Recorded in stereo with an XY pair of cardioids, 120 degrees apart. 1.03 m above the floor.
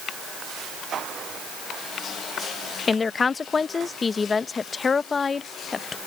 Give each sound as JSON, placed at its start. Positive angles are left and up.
{"t": 2.9, "sound": "a woman speaking", "azimuth_deg": 30}